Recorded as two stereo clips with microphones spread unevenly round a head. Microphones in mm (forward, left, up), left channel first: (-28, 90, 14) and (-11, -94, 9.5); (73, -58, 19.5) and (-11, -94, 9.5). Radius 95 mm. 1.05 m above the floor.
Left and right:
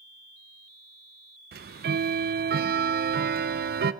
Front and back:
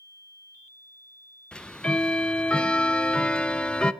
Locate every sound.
1.5 s ticking: 60° right, 0.6 m